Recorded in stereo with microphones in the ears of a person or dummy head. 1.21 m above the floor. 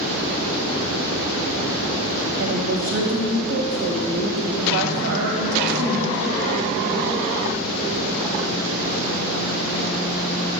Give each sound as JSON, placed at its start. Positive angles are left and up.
{"t": 2.4, "sound": "a woman speaking", "side_deg": -65, "distance_m": 1.2}